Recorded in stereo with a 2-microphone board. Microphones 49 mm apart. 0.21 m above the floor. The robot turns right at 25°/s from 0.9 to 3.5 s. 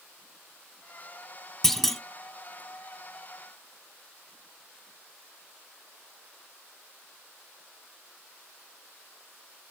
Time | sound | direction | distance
1.6 | a clunk | 10° left (ahead or behind) | 0.5 m